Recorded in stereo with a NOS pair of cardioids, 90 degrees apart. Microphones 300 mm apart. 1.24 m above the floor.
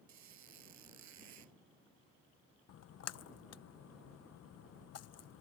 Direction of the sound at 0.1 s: 70° right.